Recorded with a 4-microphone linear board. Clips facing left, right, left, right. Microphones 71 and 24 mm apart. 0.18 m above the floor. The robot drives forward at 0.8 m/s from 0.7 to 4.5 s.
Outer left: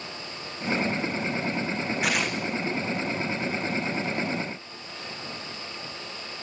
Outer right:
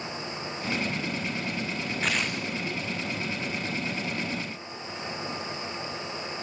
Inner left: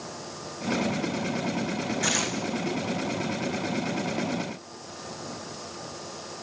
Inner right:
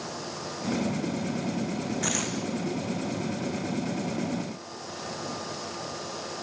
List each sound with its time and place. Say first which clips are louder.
2.0 s tearing paper: outer left 1 dB, inner left 4 dB; 10° left (ahead or behind), 2.5 m